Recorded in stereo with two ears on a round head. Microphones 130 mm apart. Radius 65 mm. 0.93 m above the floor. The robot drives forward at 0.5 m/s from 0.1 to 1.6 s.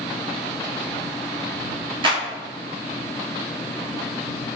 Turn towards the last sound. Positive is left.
turn(degrees=-35)  # may be behind; listen again after turning